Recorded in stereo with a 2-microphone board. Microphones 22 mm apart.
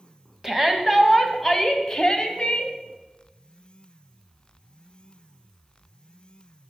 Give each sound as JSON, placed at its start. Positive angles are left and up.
{"t": 0.4, "sound": "a shout", "side_deg": -20, "distance_m": 1.5}